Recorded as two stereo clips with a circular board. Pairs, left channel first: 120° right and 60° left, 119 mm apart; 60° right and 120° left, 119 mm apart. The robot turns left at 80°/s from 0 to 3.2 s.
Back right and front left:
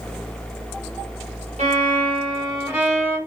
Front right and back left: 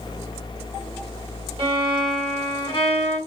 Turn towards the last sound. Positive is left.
turn(degrees=-55)